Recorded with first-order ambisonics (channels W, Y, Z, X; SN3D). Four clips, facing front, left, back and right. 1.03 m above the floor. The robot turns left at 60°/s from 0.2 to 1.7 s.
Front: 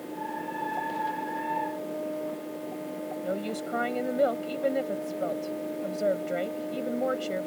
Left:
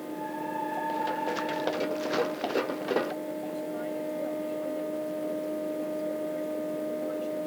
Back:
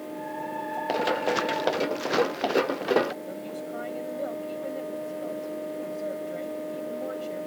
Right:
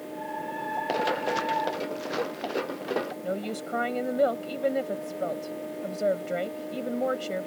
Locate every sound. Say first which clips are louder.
0.9 s running footsteps: right 7 dB, back 6 dB; 140° right; by 3.1 s 175° left
3.2 s a woman speaking: right 2 dB, front 4 dB; 55° right